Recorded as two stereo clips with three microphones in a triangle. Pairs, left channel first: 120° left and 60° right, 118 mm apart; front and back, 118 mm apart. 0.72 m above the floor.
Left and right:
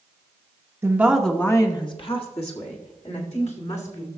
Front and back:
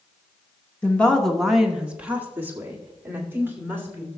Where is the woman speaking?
55° right, 0.9 m; by 4.1 s 110° left, 3 m.